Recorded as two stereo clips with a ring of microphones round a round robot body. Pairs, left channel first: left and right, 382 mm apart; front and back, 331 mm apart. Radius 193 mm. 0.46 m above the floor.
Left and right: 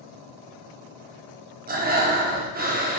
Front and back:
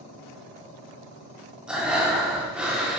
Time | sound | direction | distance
1.7 | breathing | 95° right | 0.8 m